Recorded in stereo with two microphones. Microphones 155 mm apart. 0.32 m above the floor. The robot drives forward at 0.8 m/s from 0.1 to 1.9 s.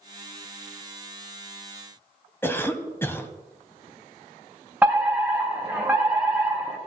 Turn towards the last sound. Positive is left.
turn(degrees=-10)  # may be behind; listen again after turning